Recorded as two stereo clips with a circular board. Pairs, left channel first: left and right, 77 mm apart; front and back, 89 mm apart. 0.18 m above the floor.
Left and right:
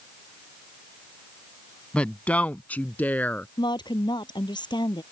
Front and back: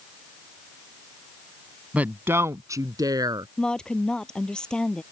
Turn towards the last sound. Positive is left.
turn(degrees=80)